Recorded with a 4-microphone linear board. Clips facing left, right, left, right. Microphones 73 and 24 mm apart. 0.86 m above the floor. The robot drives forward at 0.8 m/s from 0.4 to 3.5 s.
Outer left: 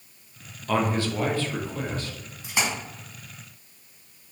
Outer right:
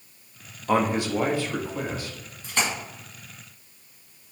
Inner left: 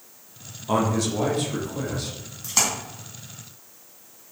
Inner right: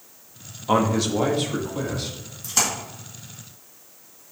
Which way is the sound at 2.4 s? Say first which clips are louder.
Even, even; 15° left (ahead or behind).